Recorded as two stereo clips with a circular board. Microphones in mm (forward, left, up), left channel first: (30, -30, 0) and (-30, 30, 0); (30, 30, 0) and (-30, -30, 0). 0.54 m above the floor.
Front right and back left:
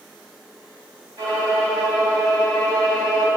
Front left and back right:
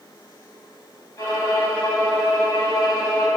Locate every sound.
1.2 s a violin: 95° left, 2.5 m